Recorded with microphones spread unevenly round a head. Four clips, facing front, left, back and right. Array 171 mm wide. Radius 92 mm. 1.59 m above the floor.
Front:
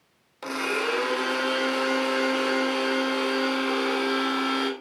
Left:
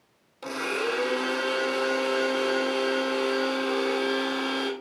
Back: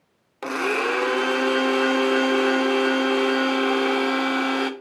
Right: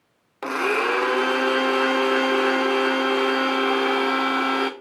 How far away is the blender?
About 1.4 m.